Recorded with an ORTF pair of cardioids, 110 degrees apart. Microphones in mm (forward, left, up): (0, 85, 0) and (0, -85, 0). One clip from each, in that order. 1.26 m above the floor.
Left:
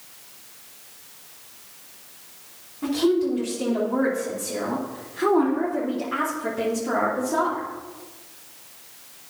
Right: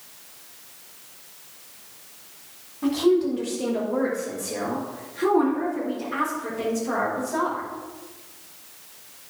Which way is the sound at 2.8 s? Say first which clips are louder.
Right 1 dB; 5° left.